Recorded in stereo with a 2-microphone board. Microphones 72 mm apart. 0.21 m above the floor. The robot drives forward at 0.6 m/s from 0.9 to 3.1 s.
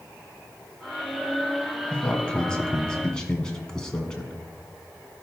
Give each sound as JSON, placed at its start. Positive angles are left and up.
{"t": 1.9, "sound": "a man speaking", "side_deg": 15, "distance_m": 1.1}